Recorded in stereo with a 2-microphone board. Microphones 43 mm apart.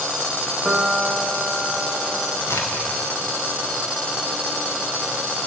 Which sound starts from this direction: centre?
A piano, at 0.7 s.